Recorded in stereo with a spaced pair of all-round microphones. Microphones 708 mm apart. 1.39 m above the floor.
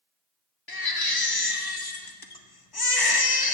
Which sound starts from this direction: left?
A baby crying, at 0.7 s.